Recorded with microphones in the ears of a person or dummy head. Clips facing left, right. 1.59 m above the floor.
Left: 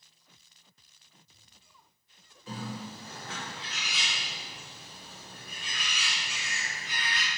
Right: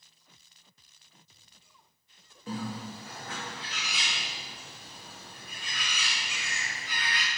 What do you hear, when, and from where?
2.5 s a bird: 45° right (ahead or behind), 1.1 m